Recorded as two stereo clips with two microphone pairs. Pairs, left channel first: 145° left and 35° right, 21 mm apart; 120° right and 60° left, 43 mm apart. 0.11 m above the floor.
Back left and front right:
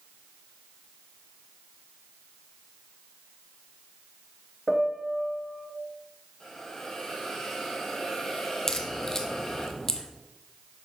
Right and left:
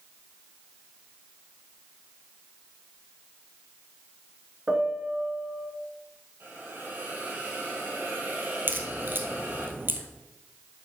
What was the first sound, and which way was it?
A piano, 90° left.